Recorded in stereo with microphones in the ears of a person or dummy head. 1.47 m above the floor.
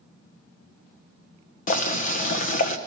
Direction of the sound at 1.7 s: 50° left (ahead or behind).